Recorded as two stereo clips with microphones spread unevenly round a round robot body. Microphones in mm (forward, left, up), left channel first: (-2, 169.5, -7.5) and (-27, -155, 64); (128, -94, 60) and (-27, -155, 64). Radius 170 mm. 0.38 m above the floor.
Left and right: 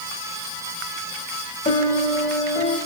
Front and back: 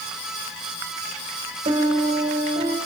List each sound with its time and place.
1.6 s a piano: 150° left, 2.5 m